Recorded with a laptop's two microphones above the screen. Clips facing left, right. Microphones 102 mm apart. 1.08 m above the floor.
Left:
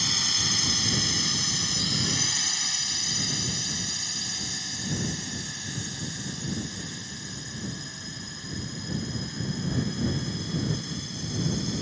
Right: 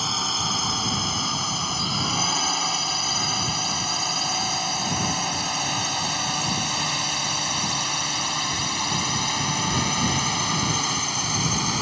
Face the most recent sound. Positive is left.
turn(degrees=-75)  # may be behind; listen again after turning